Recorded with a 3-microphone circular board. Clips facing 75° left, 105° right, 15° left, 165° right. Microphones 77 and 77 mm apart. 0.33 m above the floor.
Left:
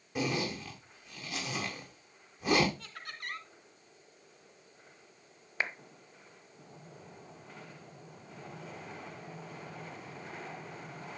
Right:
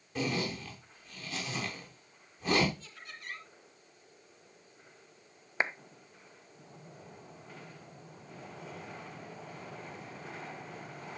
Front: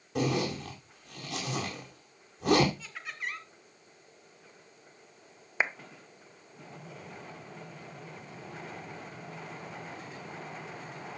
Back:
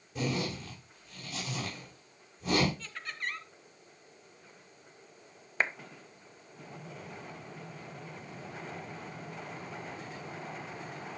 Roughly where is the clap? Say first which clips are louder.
Right 3 dB, front 1 dB; ahead right.